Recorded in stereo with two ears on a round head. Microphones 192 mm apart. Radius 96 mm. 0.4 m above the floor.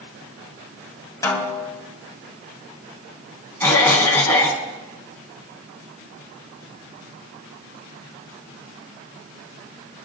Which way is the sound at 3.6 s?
10° left (ahead or behind).